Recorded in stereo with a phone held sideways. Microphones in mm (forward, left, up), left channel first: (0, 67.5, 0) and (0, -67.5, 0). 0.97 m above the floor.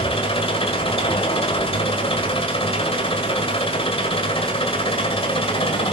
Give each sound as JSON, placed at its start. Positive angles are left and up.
{"t": 0.0, "sound": "an engine running", "side_deg": 45, "distance_m": 1.8}